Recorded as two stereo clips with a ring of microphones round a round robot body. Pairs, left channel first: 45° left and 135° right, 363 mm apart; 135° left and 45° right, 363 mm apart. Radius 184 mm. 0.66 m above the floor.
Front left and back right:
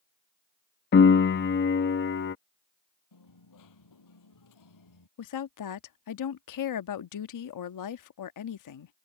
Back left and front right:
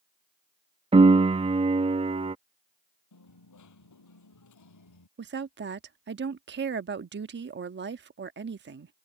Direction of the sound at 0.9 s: 15° left.